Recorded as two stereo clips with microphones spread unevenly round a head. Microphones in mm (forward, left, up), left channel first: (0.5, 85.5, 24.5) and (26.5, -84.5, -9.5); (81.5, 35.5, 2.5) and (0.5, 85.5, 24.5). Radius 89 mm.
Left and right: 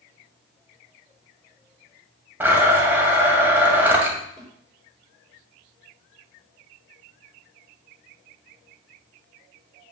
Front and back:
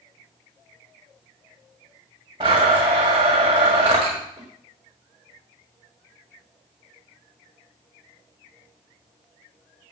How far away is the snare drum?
About 3 m.